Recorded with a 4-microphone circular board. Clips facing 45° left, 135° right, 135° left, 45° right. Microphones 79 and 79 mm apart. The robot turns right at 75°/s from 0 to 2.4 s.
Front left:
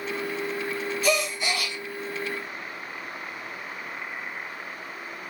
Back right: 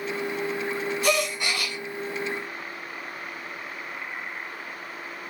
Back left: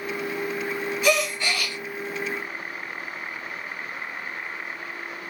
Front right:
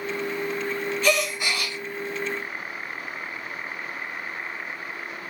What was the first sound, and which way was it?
A gasp, 150° right.